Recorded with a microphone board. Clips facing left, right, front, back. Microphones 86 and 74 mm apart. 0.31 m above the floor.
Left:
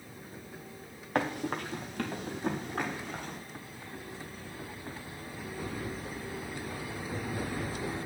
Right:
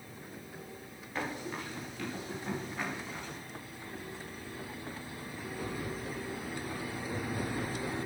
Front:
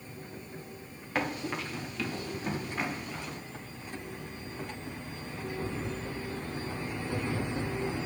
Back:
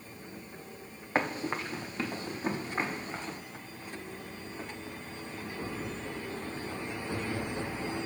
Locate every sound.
1.1 s running footsteps: 120° left, 2.5 m; by 3.4 s 125° left, 5.5 m